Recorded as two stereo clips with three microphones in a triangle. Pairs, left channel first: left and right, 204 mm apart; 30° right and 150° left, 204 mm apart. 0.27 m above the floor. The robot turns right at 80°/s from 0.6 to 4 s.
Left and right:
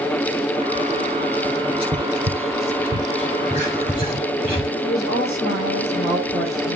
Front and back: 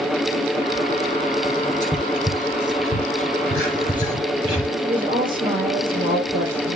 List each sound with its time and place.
1.8 s whispering: 135° right, 4 m; by 4.7 s 40° left, 4 m
4.8 s a woman speaking: 100° left, 6.5 m